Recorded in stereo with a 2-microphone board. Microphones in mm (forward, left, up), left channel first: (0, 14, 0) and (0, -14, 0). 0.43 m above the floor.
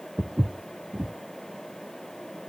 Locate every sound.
0.2 s footsteps: 35° right (ahead or behind), 0.8 m